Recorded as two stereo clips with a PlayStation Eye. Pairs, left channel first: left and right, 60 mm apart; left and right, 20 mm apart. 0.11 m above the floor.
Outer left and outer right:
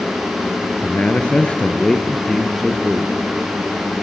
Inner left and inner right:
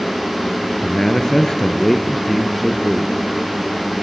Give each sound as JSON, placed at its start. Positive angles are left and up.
{"t": 0.8, "sound": "a man speaking", "side_deg": 35, "distance_m": 1.7}